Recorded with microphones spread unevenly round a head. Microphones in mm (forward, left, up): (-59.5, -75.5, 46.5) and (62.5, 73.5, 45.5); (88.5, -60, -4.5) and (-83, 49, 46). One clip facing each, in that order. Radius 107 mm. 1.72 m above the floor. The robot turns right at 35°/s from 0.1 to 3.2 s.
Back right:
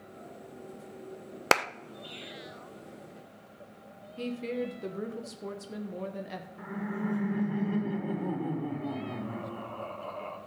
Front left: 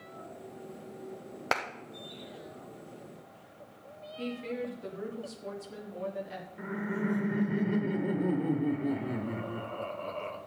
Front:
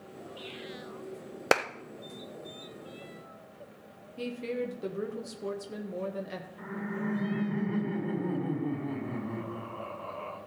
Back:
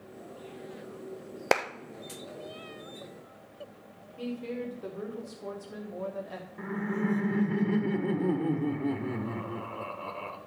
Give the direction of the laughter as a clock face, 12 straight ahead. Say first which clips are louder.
Front left 2 dB, back 5 dB; 8 o'clock.